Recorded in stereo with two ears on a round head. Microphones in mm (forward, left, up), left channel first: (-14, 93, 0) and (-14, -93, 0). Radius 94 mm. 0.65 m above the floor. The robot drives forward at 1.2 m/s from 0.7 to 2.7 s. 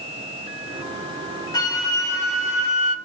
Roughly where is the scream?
I don't hear a scream.